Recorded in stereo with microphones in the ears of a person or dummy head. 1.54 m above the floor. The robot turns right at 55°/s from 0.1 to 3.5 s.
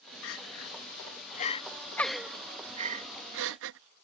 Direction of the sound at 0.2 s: 70° left (ahead or behind).